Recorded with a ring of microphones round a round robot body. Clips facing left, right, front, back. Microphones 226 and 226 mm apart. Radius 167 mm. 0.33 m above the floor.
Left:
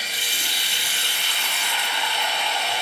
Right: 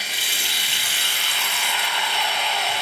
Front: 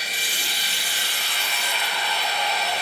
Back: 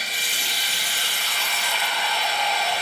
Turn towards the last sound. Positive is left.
turn(degrees=-70)